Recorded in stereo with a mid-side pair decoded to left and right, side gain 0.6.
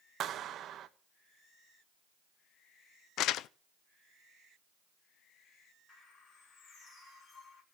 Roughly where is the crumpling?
Ahead left.